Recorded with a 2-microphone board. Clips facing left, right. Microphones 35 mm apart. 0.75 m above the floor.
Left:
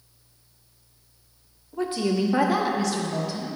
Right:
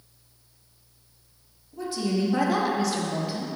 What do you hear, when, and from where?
1.7 s a woman speaking: 45° left (ahead or behind), 1.0 m; by 3.5 s 25° right (ahead or behind), 1.1 m